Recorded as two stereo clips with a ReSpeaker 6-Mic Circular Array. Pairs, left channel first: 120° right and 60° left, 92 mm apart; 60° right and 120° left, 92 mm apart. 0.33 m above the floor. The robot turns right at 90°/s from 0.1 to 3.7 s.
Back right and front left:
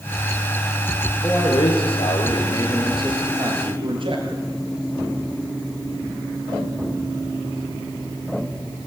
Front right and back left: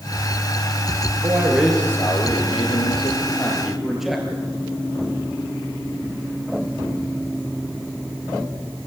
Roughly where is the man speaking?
Behind.